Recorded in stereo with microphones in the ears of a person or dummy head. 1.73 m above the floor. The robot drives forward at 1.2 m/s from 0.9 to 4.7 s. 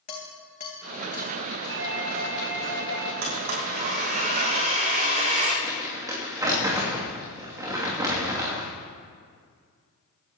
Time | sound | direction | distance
0.1 | dishes clattering | 35° left (ahead or behind) | 2.5 m
1.7 | a doorbell | 80° right | 3 m
3.2 | a blender | 60° right (ahead or behind) | 3.5 m
5.6 | crumpling | 20° right (ahead or behind) | 3 m